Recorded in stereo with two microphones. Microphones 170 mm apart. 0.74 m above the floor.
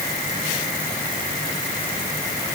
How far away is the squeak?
I don't hear a squeak.